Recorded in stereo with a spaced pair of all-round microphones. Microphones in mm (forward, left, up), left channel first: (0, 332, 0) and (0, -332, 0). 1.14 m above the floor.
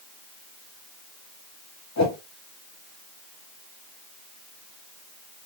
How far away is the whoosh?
About 0.6 m.